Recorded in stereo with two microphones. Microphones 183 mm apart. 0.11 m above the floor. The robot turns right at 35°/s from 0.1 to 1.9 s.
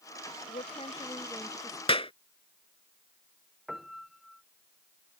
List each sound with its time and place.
0.5 s a woman speaking: 135° left; by 1.8 s straight behind
1.9 s a clap: 30° left (ahead or behind)
3.7 s a piano: centre (ahead or behind)